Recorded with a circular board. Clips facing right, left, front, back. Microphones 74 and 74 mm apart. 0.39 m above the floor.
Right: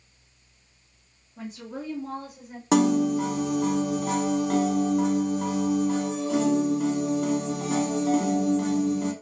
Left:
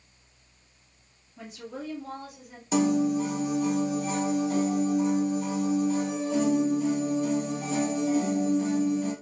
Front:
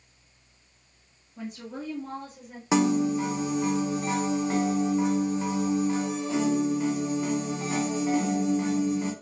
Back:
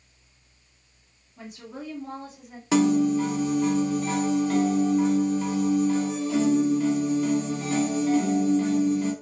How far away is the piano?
About 0.8 m.